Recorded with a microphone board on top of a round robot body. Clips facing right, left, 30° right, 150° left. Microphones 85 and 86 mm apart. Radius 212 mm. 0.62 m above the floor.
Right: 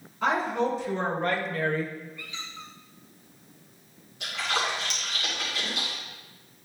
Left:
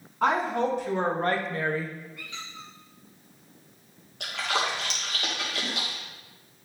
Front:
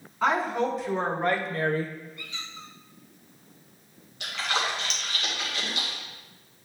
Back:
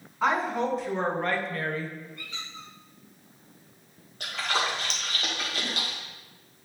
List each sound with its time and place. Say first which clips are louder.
0.2 s a woman speaking: left 1 dB, front 1 dB; 65° left, 2.5 m; by 1.9 s 10° right, 0.9 m
2.2 s a squeak: even, even; 105° left, 0.9 m
4.2 s a splash: left 1 dB, even; 105° left, 1.9 m